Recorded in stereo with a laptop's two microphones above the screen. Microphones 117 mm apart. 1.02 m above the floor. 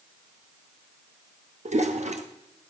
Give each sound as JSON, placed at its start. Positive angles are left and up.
{"t": 1.6, "sound": "a toilet flushing", "side_deg": -75, "distance_m": 1.3}